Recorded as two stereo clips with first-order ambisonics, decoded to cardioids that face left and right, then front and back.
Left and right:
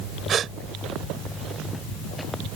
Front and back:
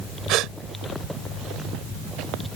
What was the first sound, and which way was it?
A gasp, 145° right.